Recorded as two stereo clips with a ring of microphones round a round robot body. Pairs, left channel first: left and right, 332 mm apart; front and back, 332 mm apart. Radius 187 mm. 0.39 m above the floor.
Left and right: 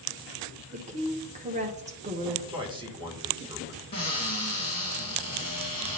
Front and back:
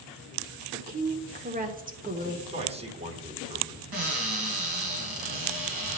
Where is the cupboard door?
165° left, 2.5 m.